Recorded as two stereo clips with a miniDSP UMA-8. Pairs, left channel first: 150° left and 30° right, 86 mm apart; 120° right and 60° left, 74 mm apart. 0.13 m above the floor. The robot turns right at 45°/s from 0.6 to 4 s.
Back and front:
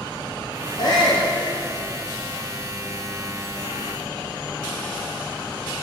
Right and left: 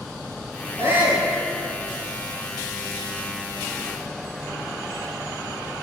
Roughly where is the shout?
Behind left.